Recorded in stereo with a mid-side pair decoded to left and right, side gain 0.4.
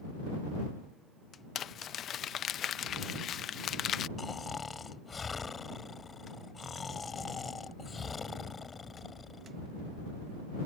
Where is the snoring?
40° left.